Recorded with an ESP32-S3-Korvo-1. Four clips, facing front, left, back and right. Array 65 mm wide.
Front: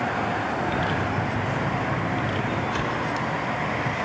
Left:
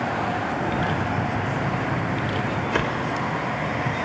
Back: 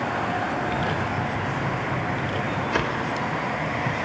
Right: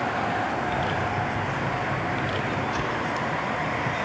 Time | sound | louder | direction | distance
0.6 | footsteps | left 1 dB, even | 40° left | 3.5 m
2.7 | a whoosh | left 3 dB, back 1 dB | 130° left | 1.0 m